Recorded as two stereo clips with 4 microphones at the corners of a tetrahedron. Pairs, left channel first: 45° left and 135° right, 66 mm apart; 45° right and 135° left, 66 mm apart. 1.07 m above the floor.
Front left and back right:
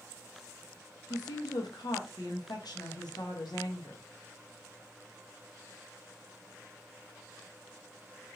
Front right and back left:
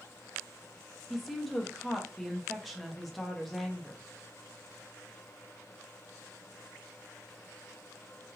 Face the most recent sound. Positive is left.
turn(degrees=45)